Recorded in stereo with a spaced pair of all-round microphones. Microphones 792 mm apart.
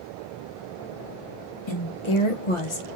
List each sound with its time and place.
1.7 s a woman speaking: 35° left (ahead or behind), 1.4 m